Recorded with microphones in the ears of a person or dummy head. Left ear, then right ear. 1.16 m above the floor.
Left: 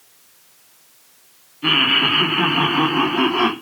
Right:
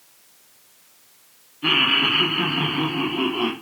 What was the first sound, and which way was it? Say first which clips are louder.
Laughter: left 2 dB; 5° left (ahead or behind).